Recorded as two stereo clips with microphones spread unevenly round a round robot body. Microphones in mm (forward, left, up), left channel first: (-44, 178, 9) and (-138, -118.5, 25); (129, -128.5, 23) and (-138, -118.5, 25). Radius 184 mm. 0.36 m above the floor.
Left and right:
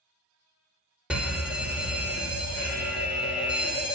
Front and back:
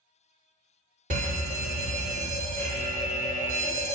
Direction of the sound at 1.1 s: 165° left.